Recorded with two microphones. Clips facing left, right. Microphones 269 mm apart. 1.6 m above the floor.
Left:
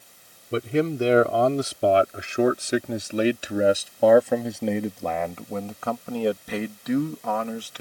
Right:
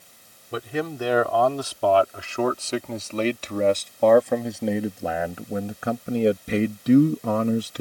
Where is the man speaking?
30° left (ahead or behind); by 7.8 s 45° right (ahead or behind).